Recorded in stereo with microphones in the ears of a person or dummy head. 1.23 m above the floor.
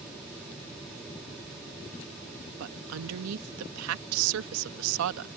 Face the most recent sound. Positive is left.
turn(degrees=-80)